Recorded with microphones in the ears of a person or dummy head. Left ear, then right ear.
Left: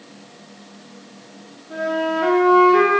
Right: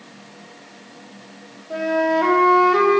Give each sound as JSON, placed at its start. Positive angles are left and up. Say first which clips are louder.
{"t": 1.7, "sound": "a flute", "louder": "right 2 dB", "side_deg": -50, "distance_m": 1.8}